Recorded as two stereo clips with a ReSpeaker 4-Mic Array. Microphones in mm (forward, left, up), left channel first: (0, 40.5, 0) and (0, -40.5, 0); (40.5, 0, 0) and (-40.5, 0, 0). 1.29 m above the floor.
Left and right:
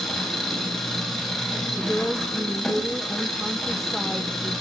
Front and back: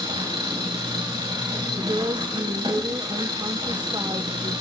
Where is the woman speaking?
Straight behind, 0.9 m.